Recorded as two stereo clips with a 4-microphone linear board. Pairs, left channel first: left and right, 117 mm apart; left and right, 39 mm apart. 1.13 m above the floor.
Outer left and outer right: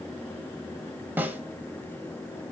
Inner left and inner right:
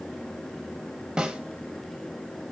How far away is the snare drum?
About 1.4 m.